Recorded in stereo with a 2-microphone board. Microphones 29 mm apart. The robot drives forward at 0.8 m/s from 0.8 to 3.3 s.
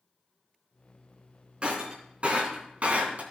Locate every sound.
1.6 s breaking glass: 35° right (ahead or behind), 3.5 m; by 3.2 s 55° right (ahead or behind), 2.5 m